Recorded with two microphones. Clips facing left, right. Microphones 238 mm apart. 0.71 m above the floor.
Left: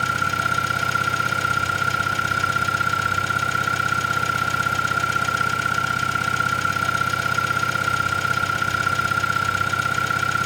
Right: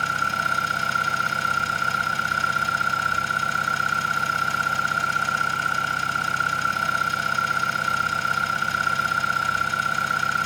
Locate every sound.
0.0 s an engine running: 70° left (ahead or behind), 1.0 m